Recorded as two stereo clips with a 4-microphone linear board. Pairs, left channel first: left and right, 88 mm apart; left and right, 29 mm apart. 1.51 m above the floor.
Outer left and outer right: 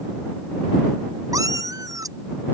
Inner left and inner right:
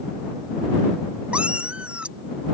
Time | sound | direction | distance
1.3 | a cat meowing | 40° right (ahead or behind) | ?